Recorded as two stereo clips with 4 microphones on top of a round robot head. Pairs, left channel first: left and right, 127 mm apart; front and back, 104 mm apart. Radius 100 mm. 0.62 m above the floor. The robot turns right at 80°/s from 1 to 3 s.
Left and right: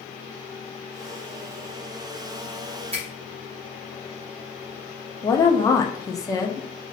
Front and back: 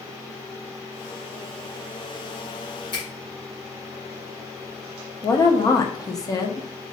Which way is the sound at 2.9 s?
50° right.